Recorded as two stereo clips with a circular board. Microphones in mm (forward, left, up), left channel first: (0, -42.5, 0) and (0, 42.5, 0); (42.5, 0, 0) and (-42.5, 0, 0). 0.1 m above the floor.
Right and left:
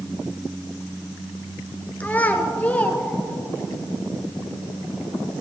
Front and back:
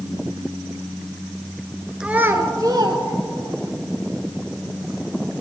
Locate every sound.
2.0 s a child speaking: 115° right, 0.9 m; by 3.7 s 165° right, 2.5 m